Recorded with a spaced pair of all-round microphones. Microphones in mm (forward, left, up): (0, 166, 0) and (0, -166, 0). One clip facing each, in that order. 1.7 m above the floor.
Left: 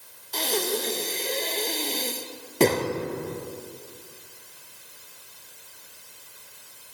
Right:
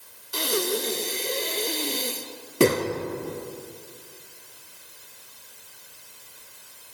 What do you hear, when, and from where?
0.3 s breathing: 15° right (ahead or behind), 0.5 m